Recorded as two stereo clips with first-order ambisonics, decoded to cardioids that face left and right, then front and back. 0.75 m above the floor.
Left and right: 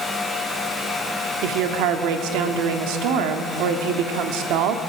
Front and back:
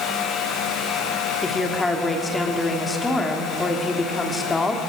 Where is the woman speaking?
75° right, 1.8 m.